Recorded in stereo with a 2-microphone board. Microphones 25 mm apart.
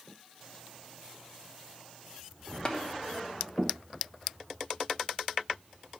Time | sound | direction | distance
2.6 | tapping | 35° left (ahead or behind) | 1.1 m